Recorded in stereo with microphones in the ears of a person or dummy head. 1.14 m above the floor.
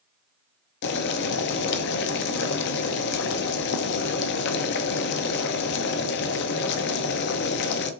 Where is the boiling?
60° left (ahead or behind), 0.6 m.